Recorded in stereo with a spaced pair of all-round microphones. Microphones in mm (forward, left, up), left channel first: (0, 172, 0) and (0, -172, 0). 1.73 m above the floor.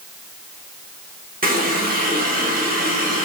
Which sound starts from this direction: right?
A running tap, at 1.4 s.